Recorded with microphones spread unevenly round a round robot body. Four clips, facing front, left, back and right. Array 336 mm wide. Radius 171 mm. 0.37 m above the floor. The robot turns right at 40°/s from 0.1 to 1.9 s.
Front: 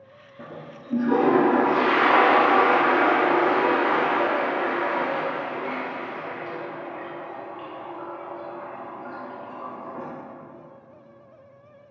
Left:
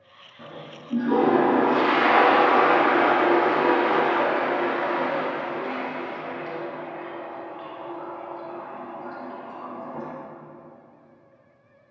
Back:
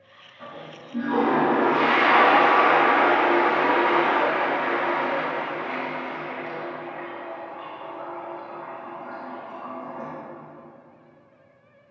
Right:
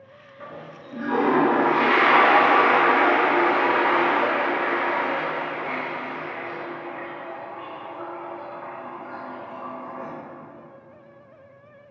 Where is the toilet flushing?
5° left, 3 m; by 10.1 s 65° left, 3 m.